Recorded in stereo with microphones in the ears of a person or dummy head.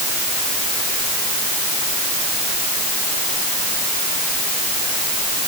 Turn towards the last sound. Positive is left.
No sound to turn to.